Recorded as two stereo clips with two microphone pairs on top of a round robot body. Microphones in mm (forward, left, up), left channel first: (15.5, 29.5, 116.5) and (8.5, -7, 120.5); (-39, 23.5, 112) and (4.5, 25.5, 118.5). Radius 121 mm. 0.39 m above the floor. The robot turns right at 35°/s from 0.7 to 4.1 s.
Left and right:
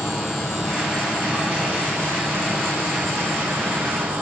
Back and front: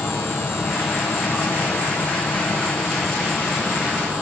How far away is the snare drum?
I don't hear a snare drum.